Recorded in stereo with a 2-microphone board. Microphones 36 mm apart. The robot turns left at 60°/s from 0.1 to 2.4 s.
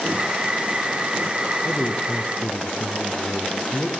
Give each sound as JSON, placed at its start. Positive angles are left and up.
{"t": 1.6, "sound": "a man speaking", "azimuth_deg": 100, "distance_m": 2.0}